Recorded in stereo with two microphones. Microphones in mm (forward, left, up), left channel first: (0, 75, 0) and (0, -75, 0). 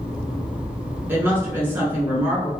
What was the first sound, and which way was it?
A woman speaking, 15° right (ahead or behind).